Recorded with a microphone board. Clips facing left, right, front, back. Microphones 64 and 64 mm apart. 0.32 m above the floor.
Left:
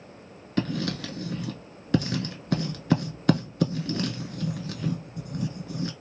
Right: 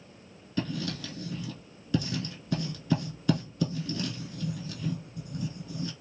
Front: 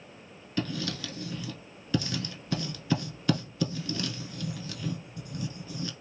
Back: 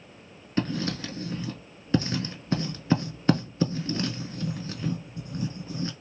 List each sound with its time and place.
0.6 s writing: 120° left, 0.8 m